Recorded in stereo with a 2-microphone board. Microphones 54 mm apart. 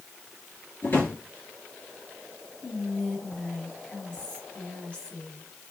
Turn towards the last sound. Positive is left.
turn(degrees=25)  # may be behind; listen again after turning